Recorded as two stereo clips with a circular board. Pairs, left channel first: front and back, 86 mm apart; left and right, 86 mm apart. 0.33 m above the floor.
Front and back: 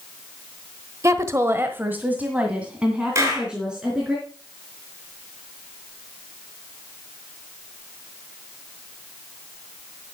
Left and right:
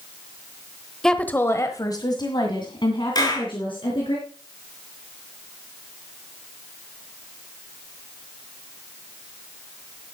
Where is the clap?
125° left, 4 m.